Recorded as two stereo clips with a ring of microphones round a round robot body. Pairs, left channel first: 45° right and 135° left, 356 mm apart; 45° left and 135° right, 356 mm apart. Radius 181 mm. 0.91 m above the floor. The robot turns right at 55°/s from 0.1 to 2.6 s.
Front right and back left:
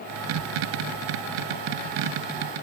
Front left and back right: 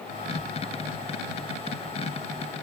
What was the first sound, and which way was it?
Only background noise.